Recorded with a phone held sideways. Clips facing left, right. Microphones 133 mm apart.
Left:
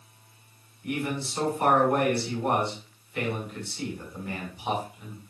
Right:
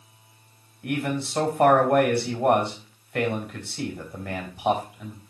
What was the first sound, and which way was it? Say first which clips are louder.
A man speaking: right 3 dB; 80° right.